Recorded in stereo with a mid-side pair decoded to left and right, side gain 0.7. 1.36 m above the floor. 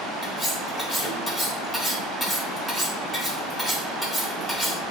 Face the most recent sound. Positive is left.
turn(degrees=15)